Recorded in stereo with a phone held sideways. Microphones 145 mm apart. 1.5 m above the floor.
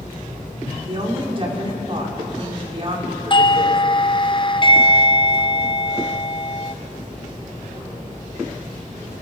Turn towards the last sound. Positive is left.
turn(degrees=35)  # may be behind; listen again after turning